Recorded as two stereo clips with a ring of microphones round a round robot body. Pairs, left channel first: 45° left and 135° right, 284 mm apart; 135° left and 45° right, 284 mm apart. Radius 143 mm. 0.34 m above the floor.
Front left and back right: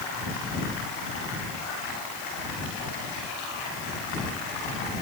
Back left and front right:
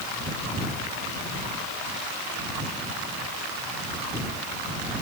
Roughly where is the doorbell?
I don't hear a doorbell.